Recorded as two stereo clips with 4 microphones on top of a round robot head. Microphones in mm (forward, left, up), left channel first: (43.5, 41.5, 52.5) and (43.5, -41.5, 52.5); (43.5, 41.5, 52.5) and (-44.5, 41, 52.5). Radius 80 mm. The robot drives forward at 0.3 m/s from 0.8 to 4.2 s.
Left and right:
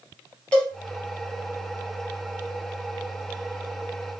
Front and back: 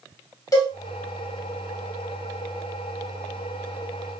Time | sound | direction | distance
0.5 | a cowbell | 20° left | 1.4 m